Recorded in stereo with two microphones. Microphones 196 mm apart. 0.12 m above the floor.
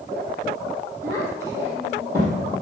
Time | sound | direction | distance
1.0 | a child speaking | 15° right (ahead or behind) | 3.5 m